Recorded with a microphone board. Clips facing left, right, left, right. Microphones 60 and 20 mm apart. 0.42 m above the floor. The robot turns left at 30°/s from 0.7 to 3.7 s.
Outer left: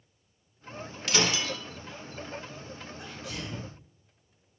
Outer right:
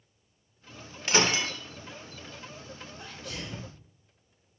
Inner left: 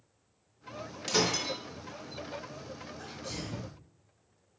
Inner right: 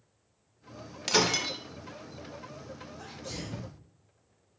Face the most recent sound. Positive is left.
turn(degrees=0)  # may be behind; listen again after turning